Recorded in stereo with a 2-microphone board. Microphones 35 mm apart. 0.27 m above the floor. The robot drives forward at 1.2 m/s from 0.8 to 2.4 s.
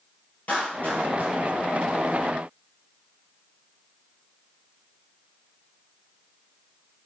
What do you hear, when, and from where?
0.5 s a clap: 55° left (ahead or behind), 6.5 m; by 1.4 s 60° left (ahead or behind), 6.5 m